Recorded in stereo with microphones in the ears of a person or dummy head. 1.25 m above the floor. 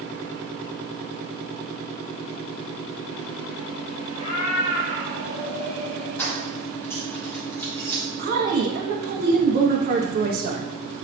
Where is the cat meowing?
35° left (ahead or behind), 1.4 m; by 6.1 s 60° left (ahead or behind), 2.5 m.